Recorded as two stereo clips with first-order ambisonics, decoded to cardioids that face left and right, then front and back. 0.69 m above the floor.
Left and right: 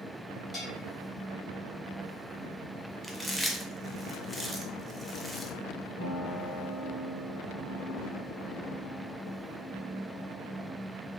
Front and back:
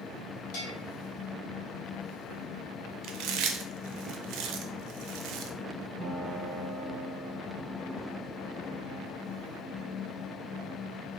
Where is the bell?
20° left, 1.3 m.